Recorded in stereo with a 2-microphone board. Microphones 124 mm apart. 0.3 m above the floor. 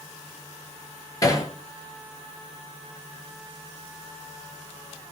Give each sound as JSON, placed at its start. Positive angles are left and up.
{"t": 1.2, "sound": "hammering", "side_deg": 30, "distance_m": 3.5}